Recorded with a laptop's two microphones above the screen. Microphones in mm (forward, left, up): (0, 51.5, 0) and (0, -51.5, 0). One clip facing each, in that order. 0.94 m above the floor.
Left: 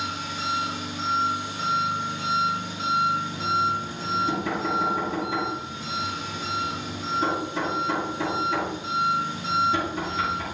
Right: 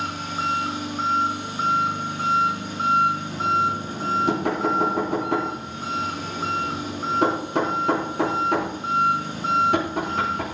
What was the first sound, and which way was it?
An engine running, 50° right (ahead or behind).